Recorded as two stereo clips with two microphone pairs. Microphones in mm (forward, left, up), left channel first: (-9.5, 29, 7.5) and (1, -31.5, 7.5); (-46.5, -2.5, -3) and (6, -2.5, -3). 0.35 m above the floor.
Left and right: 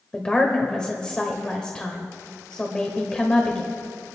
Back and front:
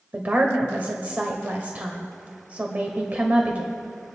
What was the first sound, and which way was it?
A woman speaking, 35° left.